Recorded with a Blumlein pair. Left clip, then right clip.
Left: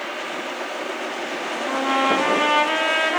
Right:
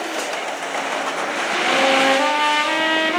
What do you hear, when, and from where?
1.7 s a trumpet: 5° right, 1.2 m